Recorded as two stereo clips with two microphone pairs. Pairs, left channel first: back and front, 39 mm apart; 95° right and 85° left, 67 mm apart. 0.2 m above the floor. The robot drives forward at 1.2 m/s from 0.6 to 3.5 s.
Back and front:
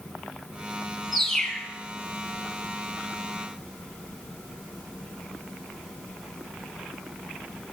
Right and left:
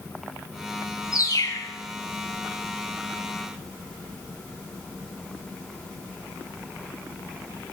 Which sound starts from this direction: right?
A bird, at 1.1 s.